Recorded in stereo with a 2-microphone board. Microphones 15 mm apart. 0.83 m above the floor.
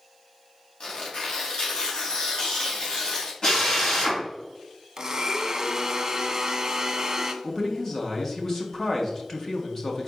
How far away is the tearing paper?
About 2.5 m.